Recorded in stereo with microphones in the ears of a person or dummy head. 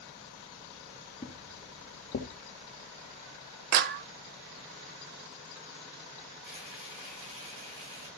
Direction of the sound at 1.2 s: 25° left (ahead or behind).